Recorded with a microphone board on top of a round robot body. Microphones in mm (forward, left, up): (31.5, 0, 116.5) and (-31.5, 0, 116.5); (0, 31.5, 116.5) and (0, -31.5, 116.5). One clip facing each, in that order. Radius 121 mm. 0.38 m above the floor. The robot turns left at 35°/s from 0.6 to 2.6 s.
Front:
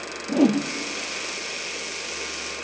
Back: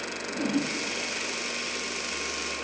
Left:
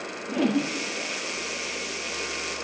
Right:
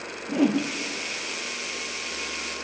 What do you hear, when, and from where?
0.3 s a whoosh: 10° right, 1.9 m